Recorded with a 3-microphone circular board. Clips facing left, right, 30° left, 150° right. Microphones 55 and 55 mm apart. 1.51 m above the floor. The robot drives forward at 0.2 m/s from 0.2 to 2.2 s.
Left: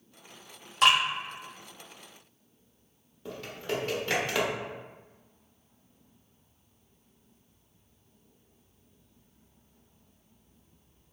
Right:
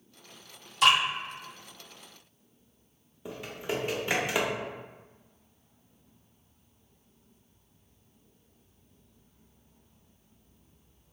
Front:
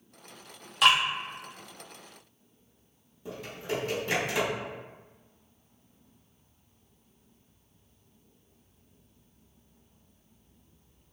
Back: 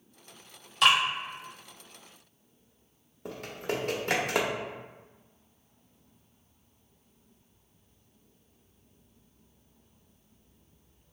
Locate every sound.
0.8 s dripping: 110° left, 1.5 m
3.2 s typing on a keyboard: 170° right, 0.6 m